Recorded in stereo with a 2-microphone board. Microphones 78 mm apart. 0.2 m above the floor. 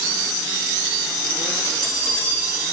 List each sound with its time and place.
1.6 s a bell: 45° left (ahead or behind), 9 m